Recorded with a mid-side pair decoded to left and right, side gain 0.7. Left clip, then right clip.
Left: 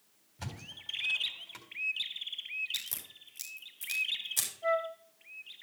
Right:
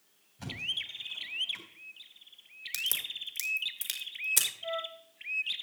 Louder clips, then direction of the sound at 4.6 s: Left 5 dB; 40° left.